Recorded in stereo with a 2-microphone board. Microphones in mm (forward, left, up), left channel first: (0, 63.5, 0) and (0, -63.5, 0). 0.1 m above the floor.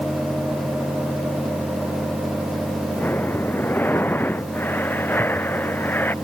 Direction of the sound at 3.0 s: 15° left (ahead or behind).